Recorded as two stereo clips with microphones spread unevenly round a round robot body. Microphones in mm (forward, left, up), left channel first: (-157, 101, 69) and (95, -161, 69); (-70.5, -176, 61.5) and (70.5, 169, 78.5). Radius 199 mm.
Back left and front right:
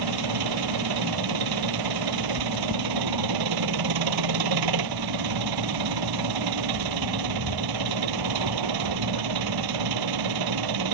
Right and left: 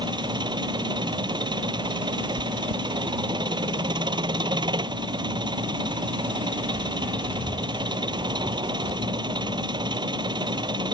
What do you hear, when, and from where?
0.0 s an engine running: 10° right
2.4 s chewing: 75° left